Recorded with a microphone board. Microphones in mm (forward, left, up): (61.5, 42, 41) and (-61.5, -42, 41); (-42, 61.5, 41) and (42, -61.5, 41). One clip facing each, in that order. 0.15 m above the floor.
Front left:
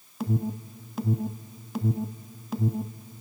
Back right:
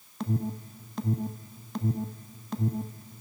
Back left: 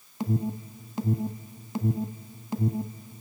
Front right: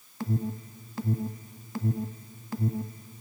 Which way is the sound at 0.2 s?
105° left.